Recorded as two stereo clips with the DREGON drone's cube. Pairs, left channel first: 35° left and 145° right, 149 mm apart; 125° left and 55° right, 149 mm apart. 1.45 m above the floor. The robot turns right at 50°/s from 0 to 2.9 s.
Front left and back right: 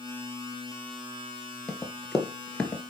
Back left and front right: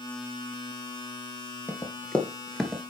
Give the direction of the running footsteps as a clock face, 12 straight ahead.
8 o'clock.